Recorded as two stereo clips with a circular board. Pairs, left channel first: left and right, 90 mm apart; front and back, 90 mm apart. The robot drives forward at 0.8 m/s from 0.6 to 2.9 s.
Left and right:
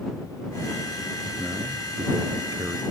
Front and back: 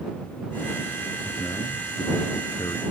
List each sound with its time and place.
1.2 s a man speaking: 35° right; by 2.8 s 40° right